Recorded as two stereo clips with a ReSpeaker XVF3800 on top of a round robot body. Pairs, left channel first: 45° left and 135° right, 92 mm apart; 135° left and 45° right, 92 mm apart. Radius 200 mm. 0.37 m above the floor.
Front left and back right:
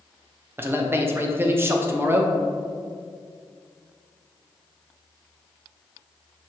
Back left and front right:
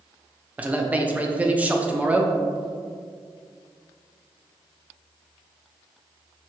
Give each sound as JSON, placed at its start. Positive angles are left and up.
{"t": 0.6, "sound": "a man speaking", "azimuth_deg": -100, "distance_m": 0.8}